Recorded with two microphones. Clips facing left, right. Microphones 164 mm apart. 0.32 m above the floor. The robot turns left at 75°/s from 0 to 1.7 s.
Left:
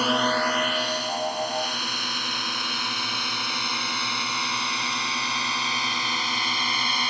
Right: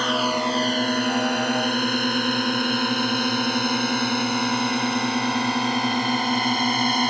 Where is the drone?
10° left (ahead or behind); by 7.1 s 50° right (ahead or behind).